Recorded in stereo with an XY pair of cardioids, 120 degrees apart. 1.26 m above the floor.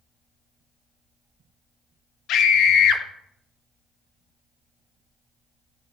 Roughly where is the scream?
Left.